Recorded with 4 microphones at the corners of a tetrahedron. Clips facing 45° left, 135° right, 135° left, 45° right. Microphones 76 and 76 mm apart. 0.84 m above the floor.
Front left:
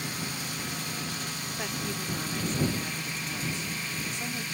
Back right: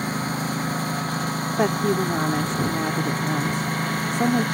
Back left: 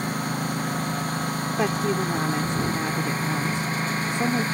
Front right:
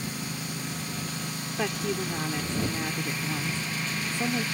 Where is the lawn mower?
175° left; by 4.5 s 170° right.